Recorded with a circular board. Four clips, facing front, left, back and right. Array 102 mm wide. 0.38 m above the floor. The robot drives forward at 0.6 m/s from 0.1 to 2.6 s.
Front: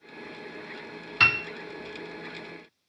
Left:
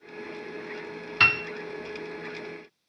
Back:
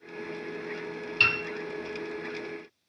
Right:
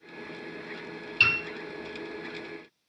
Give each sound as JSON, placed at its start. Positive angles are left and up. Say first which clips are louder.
{"t": 1.2, "sound": "a piano", "louder": "left 4 dB, front 4 dB", "azimuth_deg": 55, "distance_m": 0.7}